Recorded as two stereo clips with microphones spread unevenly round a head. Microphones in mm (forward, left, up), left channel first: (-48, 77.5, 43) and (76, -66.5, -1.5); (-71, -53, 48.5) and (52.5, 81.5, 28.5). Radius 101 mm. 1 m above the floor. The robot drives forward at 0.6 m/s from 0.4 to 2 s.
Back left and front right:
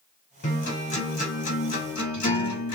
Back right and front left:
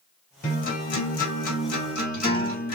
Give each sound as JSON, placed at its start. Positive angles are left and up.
{"t": 0.4, "sound": "a guitar", "azimuth_deg": -175, "distance_m": 2.0}